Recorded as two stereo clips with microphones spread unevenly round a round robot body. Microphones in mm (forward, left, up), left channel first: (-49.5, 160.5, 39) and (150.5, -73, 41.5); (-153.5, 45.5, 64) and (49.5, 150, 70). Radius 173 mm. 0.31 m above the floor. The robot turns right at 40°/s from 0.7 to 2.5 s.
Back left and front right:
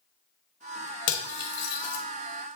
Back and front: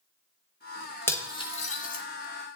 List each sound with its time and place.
1.1 s cutlery clinking: 130° left, 1.1 m; by 2.0 s 170° left, 1.1 m